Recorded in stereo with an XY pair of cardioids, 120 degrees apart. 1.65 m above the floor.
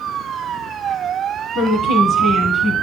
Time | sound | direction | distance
1.6 | a woman speaking | 55° left | 1.2 m